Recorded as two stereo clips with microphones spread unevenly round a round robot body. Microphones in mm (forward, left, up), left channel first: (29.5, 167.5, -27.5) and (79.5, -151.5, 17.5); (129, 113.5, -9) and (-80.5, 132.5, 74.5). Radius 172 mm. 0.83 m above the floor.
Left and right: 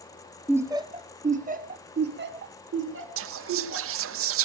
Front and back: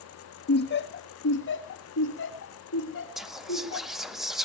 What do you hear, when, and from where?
0.5 s laughter: 5° left, 1.3 m; by 4.0 s 30° right, 3.5 m
3.2 s whispering: 60° right, 0.6 m